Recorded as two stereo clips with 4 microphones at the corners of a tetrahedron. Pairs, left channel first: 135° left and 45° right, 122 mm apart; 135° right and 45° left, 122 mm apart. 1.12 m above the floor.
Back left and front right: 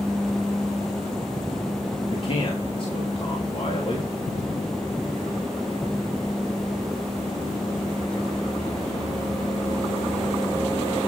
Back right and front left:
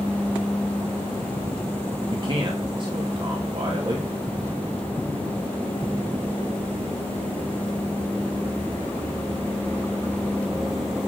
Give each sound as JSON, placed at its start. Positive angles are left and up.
{"t": 2.1, "sound": "a man speaking", "azimuth_deg": 95, "distance_m": 2.5}